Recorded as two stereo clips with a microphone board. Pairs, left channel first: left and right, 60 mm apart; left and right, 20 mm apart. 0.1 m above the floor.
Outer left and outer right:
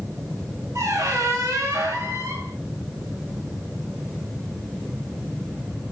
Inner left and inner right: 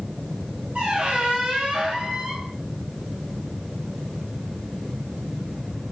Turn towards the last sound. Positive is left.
turn(degrees=-60)  # may be behind; listen again after turning